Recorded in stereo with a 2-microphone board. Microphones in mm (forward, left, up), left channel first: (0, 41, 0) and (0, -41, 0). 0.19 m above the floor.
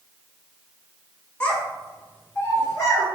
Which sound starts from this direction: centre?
A child speaking, at 1.4 s.